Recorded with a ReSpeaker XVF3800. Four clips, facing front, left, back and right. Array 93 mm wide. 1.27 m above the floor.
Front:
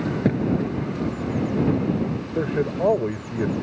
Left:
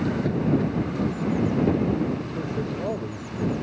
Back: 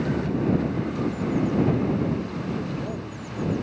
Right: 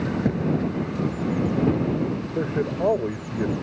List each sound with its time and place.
0.2 s a thud: 15° right
2.4 s a man speaking: 30° right